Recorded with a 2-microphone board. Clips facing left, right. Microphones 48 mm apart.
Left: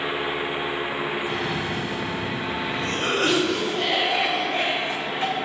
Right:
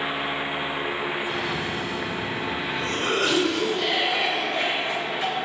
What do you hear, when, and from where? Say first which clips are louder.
1.3 s a cough: left 1 dB; 35° left (ahead or behind), 0.6 m